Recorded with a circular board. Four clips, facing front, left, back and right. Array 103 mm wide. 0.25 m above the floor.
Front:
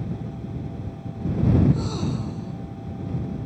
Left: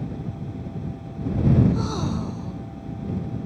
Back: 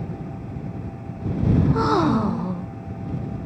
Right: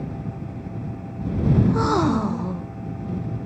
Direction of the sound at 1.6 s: 145° right.